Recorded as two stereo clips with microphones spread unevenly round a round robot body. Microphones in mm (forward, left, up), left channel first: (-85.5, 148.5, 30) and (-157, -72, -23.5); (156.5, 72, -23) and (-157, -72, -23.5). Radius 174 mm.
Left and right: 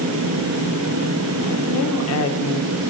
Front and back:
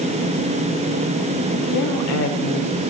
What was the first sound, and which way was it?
A woman speaking, 55° left.